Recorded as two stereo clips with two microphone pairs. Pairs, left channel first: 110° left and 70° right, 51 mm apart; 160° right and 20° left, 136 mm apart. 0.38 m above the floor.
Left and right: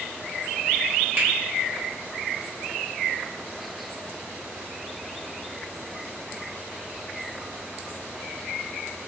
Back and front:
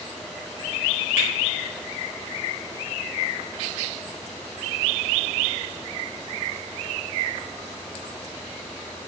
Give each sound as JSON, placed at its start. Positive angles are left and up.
{"t": 1.2, "sound": "a finger snap", "azimuth_deg": -55, "distance_m": 1.1}